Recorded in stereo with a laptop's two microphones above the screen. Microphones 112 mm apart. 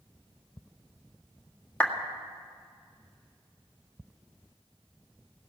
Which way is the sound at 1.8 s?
10° left (ahead or behind).